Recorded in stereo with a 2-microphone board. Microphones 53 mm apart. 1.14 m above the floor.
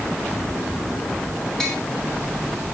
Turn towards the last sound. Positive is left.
turn(degrees=10)  # may be behind; listen again after turning